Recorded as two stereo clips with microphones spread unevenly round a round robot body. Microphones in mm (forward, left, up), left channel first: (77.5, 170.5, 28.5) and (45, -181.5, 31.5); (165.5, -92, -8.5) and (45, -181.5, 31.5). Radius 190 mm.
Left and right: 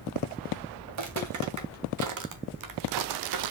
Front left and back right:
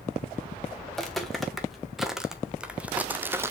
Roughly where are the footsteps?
Ahead right.